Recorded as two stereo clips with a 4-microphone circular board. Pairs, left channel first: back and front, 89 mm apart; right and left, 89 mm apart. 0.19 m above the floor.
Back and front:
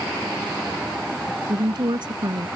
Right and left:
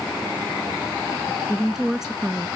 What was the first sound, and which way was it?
A woman speaking, 5° left.